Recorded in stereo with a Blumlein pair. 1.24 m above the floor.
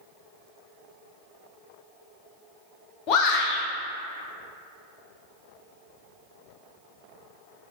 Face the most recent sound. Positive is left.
turn(degrees=35)